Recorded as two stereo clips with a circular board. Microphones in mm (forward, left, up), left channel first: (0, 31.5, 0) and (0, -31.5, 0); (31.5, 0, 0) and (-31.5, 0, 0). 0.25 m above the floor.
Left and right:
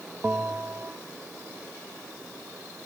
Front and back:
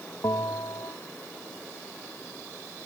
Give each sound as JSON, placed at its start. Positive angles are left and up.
{"t": 0.2, "sound": "a bell", "azimuth_deg": -25}